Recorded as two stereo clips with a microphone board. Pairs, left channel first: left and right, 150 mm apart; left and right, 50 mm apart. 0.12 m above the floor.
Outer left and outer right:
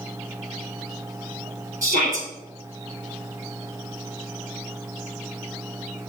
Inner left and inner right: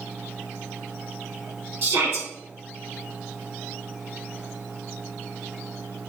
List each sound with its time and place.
1.8 s a shout: 60° right (ahead or behind), 2 m